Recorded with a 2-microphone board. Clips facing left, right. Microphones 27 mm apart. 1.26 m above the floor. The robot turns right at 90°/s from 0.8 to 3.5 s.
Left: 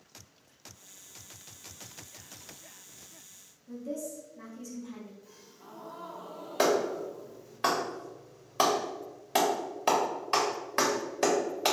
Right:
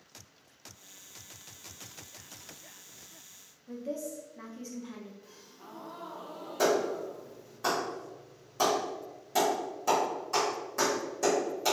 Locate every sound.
3.7 s a woman speaking: 35° right (ahead or behind), 0.7 m
5.2 s a gasp: 50° right (ahead or behind), 0.8 m
6.6 s a clap: 70° left (ahead or behind), 1.2 m